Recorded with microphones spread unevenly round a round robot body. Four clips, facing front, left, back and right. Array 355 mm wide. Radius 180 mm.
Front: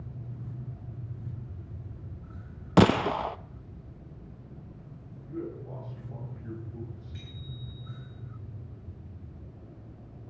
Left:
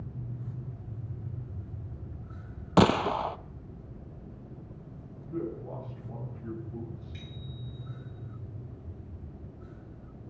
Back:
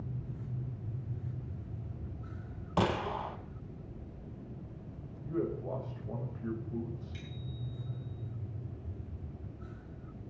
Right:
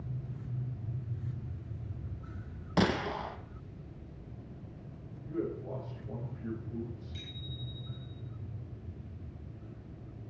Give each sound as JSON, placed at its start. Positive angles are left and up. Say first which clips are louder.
{"t": 2.8, "sound": "a gunshot", "louder": "left 7 dB, front 9 dB", "azimuth_deg": 20, "distance_m": 0.6}
{"t": 5.2, "sound": "a man speaking", "louder": "even, back 3 dB", "azimuth_deg": -160, "distance_m": 5.0}
{"t": 7.1, "sound": "a bicycle bell", "louder": "left 2 dB, even", "azimuth_deg": 155, "distance_m": 9.0}